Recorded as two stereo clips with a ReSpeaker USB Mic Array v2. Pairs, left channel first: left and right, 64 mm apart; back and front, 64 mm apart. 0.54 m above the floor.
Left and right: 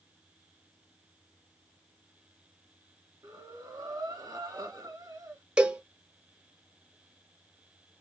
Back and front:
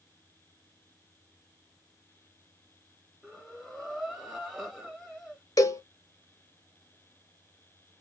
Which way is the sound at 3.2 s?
90° right.